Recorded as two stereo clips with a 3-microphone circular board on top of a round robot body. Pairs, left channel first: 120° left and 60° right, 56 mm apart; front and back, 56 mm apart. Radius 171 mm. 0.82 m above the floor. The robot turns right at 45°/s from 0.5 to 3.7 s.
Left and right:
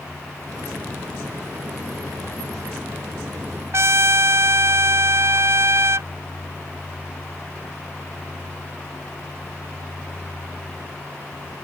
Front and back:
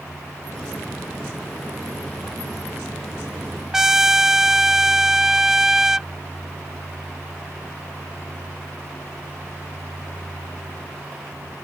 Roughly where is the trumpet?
Right.